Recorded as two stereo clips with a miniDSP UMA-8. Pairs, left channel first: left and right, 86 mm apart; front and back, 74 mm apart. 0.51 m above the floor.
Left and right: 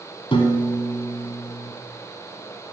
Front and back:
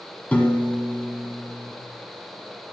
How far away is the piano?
About 1.5 m.